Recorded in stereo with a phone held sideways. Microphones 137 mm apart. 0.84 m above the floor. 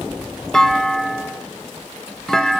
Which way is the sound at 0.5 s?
5° left (ahead or behind).